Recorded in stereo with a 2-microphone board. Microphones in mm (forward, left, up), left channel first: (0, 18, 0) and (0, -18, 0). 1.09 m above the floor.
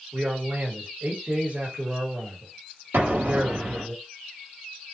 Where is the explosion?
70° right (ahead or behind), 1.0 m.